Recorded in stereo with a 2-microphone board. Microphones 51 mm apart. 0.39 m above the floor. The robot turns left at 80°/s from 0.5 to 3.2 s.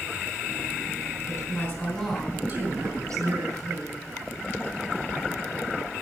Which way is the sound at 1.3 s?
75° left.